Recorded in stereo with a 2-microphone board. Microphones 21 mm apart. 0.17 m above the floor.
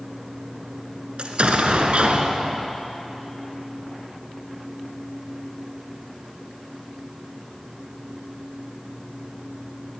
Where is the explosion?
55° right (ahead or behind), 2 m.